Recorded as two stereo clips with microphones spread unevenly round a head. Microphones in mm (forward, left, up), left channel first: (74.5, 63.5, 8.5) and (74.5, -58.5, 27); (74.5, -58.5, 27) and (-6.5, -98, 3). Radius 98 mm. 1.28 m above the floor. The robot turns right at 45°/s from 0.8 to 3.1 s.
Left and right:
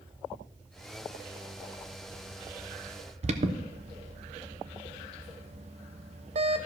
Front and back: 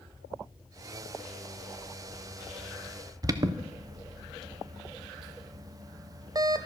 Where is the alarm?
130° right, 0.7 m.